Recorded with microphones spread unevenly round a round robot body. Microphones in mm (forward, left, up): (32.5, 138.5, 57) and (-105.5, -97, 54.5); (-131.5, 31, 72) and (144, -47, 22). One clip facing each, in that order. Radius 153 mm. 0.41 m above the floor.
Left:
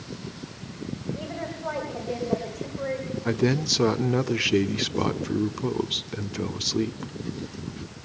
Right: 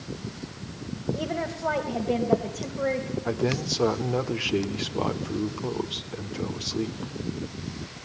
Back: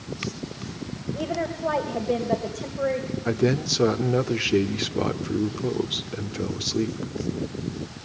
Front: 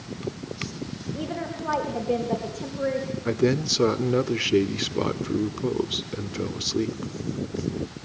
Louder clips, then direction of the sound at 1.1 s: Right 4 dB, back 2 dB; 90° right.